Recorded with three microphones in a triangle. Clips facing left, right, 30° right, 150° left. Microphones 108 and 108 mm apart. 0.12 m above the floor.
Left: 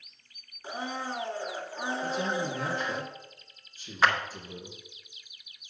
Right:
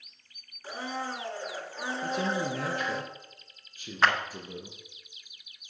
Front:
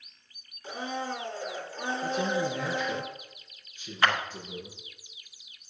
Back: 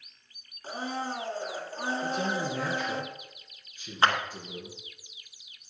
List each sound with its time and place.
0.6 s a blender: 145° left, 1.4 m
2.0 s a man speaking: 125° right, 4 m
4.0 s a clap: straight behind, 1.0 m